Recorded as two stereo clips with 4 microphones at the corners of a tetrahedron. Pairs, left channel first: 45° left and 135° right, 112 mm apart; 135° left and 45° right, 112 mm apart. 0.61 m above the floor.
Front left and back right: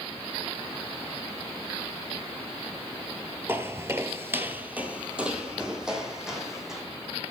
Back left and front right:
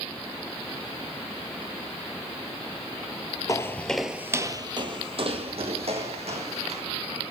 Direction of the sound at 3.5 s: 175° left.